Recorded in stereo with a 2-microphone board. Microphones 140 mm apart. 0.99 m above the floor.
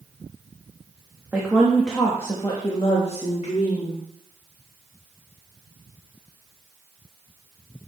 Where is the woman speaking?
15° right (ahead or behind), 1.5 m; by 4.0 s 60° left (ahead or behind), 2 m.